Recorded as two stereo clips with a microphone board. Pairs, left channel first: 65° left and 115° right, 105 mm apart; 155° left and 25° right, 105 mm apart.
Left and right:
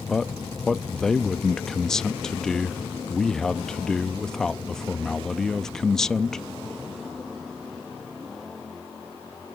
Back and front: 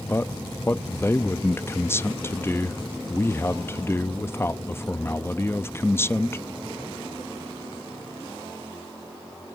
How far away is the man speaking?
About 0.5 m.